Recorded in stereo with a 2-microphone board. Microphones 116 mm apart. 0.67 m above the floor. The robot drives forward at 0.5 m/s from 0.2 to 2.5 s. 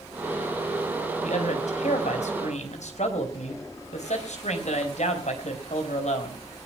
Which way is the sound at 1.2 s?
80° left.